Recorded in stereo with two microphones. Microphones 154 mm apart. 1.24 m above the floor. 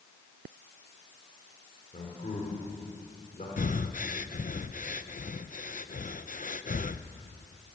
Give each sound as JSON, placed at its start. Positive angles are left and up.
{"t": 1.9, "sound": "a man speaking", "side_deg": 50, "distance_m": 5.0}
{"t": 3.6, "sound": "breathing", "side_deg": 60, "distance_m": 0.7}